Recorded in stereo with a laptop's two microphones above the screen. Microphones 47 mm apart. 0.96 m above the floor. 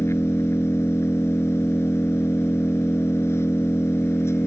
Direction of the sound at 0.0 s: 75° left (ahead or behind).